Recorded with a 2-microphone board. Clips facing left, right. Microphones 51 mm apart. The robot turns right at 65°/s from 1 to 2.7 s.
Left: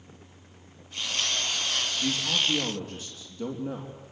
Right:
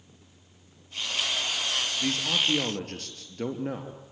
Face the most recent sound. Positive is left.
turn(degrees=-100)